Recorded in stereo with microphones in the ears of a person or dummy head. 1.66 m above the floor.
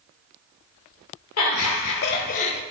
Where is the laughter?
85° left, 0.6 m; by 2.6 s 30° left (ahead or behind), 0.6 m.